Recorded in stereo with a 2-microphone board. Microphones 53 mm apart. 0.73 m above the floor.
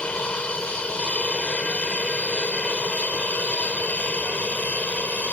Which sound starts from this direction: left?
An aircraft, at 0.0 s.